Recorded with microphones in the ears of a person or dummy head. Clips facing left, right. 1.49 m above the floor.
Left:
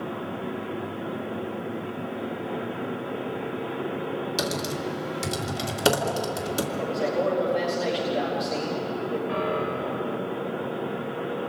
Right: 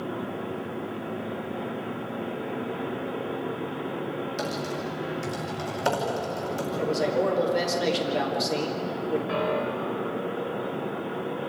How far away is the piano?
About 4 m.